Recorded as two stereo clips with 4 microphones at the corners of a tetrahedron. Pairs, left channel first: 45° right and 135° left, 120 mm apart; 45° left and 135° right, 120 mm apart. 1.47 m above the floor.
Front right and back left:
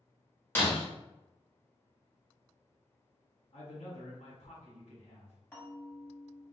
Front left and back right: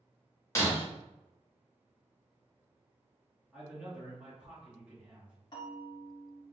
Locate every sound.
0.6 s breaking glass: 10° left, 0.9 m
3.5 s a man speaking: 55° right, 1.0 m
5.5 s a bell: 20° left, 1.0 m